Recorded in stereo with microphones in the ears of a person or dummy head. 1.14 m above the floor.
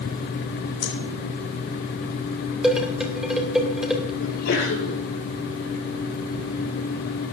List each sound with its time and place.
0.8 s breathing: 60° left (ahead or behind), 3 m
2.6 s dishes clattering: centre (ahead or behind), 3 m
4.2 s a sneeze: 75° left (ahead or behind), 4 m